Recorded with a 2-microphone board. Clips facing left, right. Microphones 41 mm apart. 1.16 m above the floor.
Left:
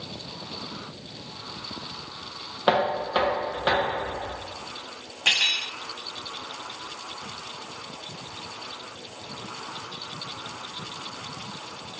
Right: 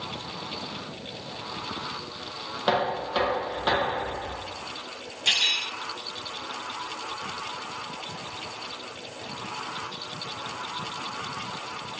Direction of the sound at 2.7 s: 20° left (ahead or behind).